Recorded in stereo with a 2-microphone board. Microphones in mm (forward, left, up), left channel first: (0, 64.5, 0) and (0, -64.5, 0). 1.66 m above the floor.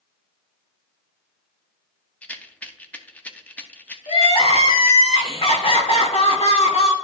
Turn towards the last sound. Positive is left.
turn(degrees=50)  # may be behind; listen again after turning